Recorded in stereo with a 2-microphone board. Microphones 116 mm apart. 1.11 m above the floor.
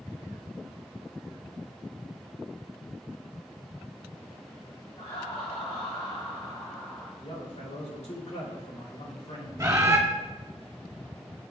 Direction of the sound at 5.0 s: 60° left (ahead or behind).